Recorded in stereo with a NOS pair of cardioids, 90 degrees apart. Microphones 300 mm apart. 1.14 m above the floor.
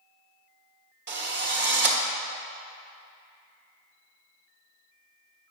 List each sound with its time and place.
1.1 s a drill: 35° right, 1.1 m